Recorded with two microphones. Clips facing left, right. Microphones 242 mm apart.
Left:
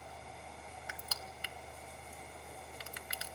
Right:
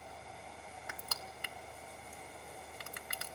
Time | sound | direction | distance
0.9 | crushing | 60° right (ahead or behind) | 1.3 m